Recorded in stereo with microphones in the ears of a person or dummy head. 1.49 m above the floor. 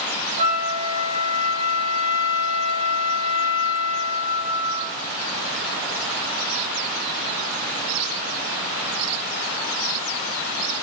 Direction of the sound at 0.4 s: 55° right (ahead or behind).